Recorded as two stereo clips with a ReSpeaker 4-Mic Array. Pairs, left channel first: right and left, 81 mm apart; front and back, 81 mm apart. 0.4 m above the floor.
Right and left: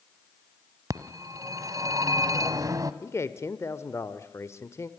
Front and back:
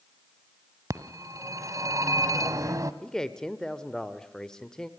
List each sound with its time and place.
0.9 s a phone ringing: 135° left, 1.4 m
3.0 s a man speaking: 75° right, 1.3 m